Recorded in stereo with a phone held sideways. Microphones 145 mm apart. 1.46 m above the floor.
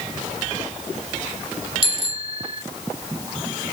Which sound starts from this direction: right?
A bicycle bell, at 1.8 s.